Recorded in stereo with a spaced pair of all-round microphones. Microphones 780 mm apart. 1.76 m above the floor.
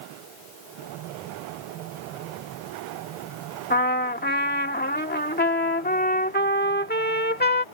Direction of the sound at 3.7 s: 10° left (ahead or behind).